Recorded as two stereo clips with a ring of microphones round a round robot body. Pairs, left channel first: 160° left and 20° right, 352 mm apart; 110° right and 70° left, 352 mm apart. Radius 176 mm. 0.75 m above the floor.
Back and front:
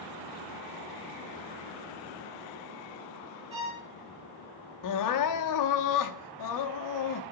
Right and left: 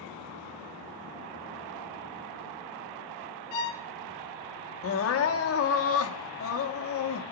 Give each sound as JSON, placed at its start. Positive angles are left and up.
{"t": 3.5, "sound": "a violin", "azimuth_deg": -95, "distance_m": 2.5}
{"t": 4.8, "sound": "crying", "azimuth_deg": -165, "distance_m": 0.8}